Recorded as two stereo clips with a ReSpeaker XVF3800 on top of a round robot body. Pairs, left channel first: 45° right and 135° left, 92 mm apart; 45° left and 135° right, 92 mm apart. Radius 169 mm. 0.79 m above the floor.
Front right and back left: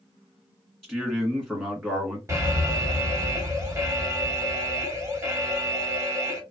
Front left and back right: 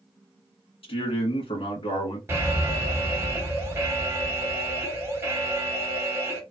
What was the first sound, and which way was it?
A man speaking, 55° left.